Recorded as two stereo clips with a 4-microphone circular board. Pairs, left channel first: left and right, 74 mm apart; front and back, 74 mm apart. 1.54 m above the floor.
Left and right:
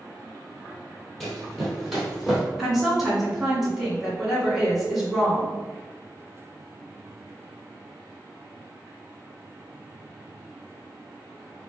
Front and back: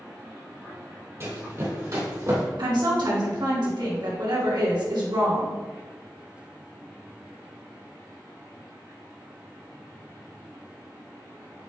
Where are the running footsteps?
170° left, 1.9 m; by 2.4 s 170° right, 2.5 m.